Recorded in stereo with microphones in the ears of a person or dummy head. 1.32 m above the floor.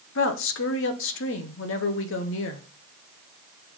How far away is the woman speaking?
About 1.0 m.